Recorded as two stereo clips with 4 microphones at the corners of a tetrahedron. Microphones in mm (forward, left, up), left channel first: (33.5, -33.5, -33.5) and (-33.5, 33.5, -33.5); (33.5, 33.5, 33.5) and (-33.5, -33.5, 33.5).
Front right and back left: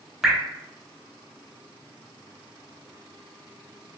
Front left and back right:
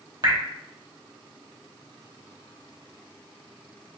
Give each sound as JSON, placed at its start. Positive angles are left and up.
{"t": 0.2, "sound": "dripping", "azimuth_deg": -140, "distance_m": 0.8}